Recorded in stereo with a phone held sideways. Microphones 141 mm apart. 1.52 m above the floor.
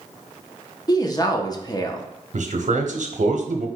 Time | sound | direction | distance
0.9 | a woman speaking | 30° left (ahead or behind) | 0.7 m
2.3 | a man speaking | 65° right (ahead or behind) | 0.8 m